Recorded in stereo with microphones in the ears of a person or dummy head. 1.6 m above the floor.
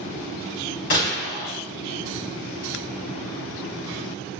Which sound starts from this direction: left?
A gunshot, at 0.9 s.